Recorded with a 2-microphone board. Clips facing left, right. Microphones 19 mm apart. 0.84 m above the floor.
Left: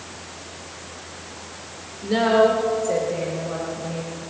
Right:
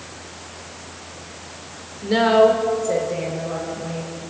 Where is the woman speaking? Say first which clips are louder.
Right 3 dB; 20° right (ahead or behind), 3 m; by 4.1 s 5° right (ahead or behind), 4.5 m.